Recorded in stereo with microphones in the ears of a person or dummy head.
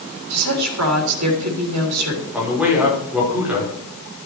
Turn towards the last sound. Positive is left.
turn(degrees=-5)  # may be behind; listen again after turning